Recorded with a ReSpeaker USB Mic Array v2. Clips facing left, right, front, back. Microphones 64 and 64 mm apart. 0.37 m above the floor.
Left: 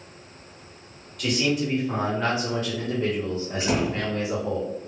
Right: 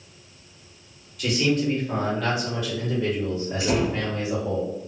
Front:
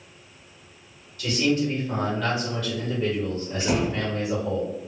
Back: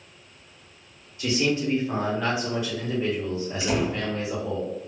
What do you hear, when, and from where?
1.2 s a man speaking: 175° right, 1.0 m; by 4.6 s 105° left, 2 m
3.6 s a door slam: 45° left, 1.6 m